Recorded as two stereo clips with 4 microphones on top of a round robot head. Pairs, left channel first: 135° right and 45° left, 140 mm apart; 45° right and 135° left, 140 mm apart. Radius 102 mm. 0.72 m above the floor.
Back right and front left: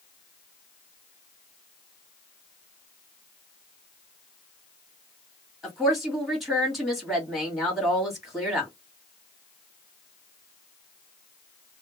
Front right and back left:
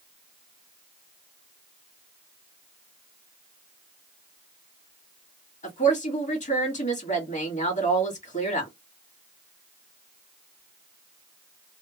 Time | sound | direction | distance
5.6 | a woman speaking | 45° right | 1.8 m